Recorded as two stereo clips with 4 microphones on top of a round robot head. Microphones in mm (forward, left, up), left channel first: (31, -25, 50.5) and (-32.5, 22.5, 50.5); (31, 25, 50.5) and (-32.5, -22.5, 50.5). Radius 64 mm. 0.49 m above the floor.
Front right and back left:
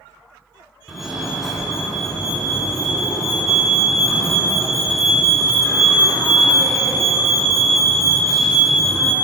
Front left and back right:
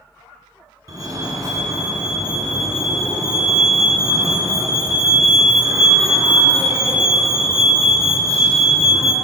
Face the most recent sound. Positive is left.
turn(degrees=-125)